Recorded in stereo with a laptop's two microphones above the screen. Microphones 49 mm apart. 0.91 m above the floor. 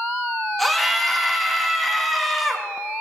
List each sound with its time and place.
0.6 s a scream: centre (ahead or behind), 1.5 m